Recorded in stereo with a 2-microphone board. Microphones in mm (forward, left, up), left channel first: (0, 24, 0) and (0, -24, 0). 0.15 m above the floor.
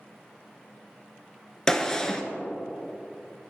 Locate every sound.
1.7 s a gunshot: 15° left (ahead or behind), 0.5 m